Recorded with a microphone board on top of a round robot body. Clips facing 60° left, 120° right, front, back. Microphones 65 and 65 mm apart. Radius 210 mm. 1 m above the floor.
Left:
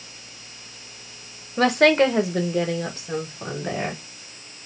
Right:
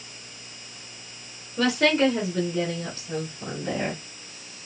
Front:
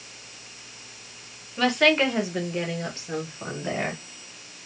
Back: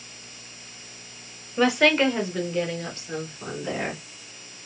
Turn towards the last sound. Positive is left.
turn(degrees=55)